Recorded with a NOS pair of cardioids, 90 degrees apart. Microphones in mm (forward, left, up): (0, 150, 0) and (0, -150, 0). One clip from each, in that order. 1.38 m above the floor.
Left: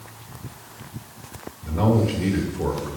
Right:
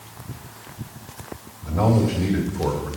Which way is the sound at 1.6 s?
10° left.